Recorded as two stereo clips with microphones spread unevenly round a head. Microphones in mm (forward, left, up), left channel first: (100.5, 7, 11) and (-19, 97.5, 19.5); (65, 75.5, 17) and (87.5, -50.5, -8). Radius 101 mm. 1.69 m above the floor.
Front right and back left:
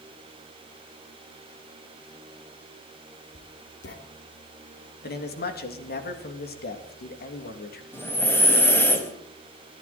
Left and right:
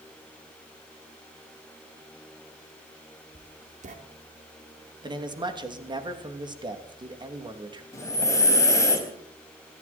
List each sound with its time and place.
3.4 s writing: 55° right, 3 m
5.0 s a man speaking: 25° right, 2.5 m
7.9 s breathing: 40° left, 4 m